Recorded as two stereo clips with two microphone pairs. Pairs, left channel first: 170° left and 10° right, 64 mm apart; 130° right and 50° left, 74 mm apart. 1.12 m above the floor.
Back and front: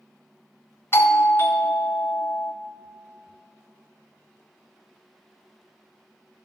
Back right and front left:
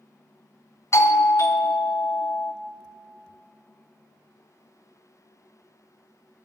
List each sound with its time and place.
0.9 s a doorbell: 160° right, 0.6 m